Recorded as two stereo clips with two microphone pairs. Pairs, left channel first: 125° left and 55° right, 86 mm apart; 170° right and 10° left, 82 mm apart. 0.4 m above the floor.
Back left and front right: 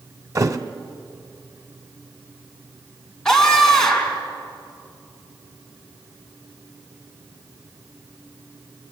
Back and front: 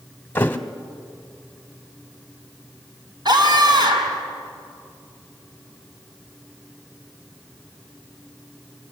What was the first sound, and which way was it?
A thud, 105° right.